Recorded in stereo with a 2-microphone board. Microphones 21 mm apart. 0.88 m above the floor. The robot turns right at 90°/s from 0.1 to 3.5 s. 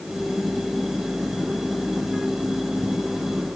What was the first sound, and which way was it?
Only background noise.